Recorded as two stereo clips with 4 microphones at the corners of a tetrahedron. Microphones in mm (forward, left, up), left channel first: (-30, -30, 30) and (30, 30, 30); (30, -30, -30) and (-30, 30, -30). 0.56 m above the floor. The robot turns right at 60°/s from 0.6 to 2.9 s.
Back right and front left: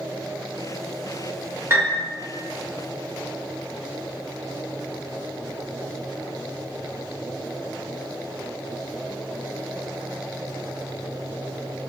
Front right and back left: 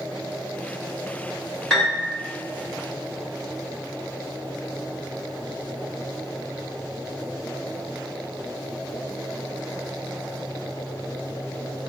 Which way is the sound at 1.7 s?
30° left.